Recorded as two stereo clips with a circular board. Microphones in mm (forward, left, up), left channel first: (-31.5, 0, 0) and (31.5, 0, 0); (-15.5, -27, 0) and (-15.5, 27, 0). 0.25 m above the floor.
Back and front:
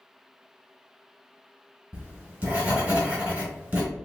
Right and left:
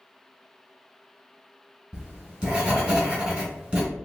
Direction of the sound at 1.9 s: 30° left.